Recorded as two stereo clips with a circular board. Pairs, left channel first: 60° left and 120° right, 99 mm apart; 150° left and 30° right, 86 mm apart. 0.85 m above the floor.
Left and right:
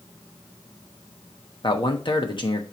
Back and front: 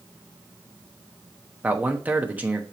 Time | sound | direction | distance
1.6 | a man speaking | 40° left | 1.1 m